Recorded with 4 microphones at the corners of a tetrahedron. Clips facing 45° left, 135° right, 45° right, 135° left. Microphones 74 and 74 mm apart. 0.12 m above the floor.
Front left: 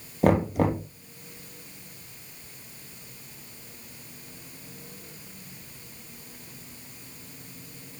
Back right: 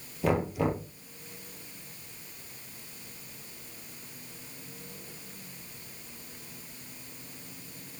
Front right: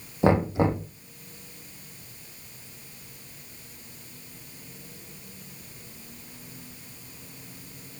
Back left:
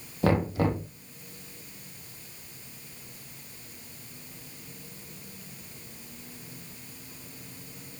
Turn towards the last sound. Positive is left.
turn(degrees=20)